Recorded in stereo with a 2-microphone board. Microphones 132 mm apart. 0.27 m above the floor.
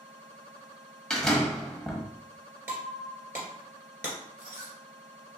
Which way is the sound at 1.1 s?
5° left (ahead or behind).